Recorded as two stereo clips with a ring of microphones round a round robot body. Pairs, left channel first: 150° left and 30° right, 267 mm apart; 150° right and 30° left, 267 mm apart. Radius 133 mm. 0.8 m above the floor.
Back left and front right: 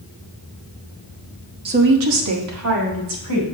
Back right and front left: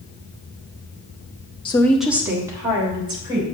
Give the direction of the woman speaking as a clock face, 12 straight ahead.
3 o'clock.